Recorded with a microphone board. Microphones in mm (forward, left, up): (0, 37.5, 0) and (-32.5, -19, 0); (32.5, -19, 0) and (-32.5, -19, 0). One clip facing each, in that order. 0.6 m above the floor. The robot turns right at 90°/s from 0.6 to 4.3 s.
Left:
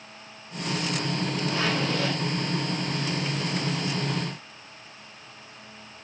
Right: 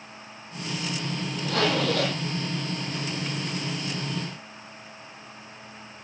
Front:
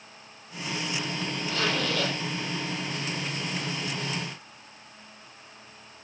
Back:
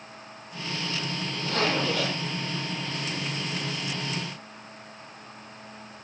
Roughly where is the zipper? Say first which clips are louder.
Right 5 dB, back 3 dB; behind right.